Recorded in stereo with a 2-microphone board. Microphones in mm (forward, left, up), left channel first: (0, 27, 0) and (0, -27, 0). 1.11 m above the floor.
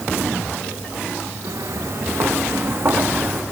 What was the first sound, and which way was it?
Footsteps, 75° right (ahead or behind).